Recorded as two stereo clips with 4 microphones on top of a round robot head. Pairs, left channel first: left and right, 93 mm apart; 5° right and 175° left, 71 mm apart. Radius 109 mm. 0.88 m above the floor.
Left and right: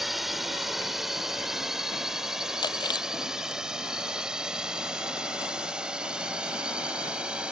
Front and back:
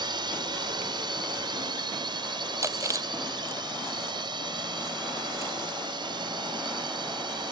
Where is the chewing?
130° left.